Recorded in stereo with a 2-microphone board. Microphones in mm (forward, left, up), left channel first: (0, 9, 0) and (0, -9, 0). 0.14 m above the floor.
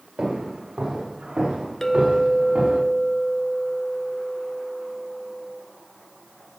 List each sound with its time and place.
0.2 s footsteps: 80° right, 5 m; by 2.8 s 85° right, 6 m
1.8 s a clink: 25° left (ahead or behind), 1.0 m